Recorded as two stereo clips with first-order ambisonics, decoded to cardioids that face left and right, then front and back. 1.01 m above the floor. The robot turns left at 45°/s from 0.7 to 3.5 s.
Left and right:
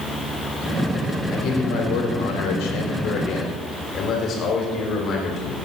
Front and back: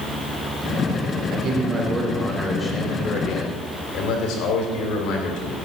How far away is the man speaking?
About 3 m.